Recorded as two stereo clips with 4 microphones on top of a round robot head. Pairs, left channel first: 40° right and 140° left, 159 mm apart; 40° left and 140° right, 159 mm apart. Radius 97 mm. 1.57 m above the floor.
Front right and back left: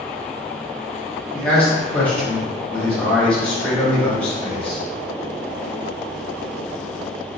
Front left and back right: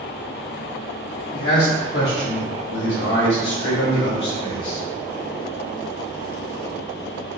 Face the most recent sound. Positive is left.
turn(degrees=40)